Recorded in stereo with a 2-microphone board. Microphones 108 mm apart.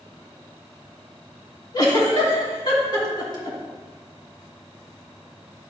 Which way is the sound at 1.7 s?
40° left (ahead or behind).